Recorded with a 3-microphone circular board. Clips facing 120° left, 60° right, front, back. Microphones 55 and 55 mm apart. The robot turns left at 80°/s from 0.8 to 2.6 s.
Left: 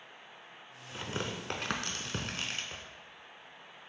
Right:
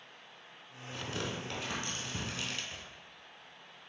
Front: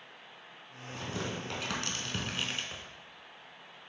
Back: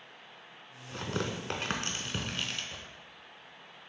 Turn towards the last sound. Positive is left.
turn(degrees=60)